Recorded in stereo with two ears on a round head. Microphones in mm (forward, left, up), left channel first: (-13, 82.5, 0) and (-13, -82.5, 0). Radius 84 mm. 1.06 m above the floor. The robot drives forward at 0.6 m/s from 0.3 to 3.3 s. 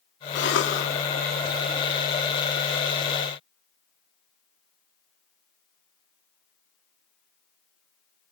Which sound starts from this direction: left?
A cough, at 0.3 s.